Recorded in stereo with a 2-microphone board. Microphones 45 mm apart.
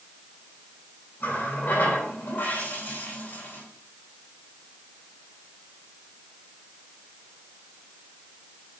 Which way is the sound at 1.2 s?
55° left (ahead or behind).